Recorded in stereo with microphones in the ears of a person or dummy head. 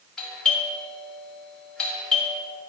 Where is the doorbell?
10° left (ahead or behind), 3 m.